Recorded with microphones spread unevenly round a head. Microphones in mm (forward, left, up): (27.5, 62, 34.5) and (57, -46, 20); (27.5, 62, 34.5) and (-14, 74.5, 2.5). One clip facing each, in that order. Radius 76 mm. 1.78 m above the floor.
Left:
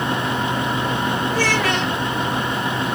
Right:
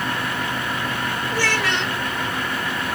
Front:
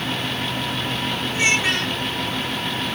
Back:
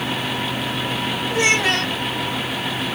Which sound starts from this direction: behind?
A child speaking, at 1.3 s.